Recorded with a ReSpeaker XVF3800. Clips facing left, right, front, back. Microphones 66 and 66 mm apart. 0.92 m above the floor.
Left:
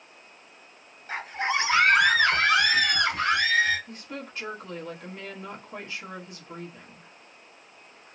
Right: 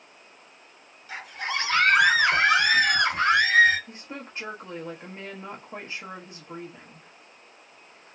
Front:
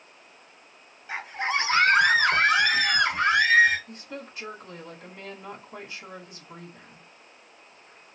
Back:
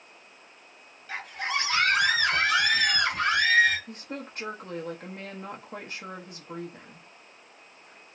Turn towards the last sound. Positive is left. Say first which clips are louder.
# left 1 dB, back 1 dB
turn(degrees=-145)